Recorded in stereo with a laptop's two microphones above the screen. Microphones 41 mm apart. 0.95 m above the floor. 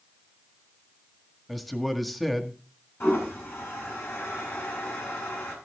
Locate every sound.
1.5 s a man speaking: 5° left (ahead or behind), 1.7 m
3.0 s a toilet flushing: 75° left (ahead or behind), 4.5 m